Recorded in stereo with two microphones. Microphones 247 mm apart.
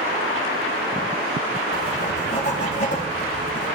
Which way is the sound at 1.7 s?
35° left (ahead or behind).